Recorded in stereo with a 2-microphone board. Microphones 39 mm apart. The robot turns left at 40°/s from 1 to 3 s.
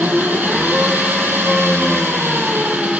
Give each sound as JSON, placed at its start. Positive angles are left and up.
{"t": 0.0, "sound": "an engine running", "azimuth_deg": -60, "distance_m": 1.0}